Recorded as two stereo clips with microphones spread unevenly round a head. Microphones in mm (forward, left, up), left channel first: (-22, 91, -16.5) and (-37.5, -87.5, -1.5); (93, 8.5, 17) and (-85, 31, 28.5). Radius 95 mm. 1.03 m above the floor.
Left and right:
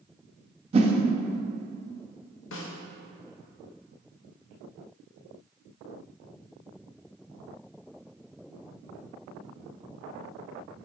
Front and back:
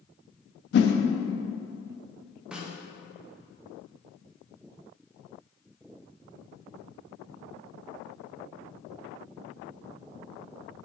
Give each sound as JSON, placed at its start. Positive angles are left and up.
{"t": 0.7, "sound": "a whoosh", "azimuth_deg": -40, "distance_m": 0.5}
{"t": 2.5, "sound": "a snare drum", "azimuth_deg": 85, "distance_m": 0.7}